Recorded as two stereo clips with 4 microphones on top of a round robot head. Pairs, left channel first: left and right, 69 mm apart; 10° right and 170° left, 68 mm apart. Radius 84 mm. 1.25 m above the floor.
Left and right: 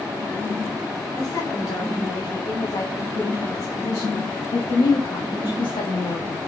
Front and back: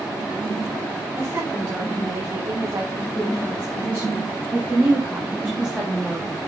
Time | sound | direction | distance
1.2 | a woman speaking | 125° left | 4 m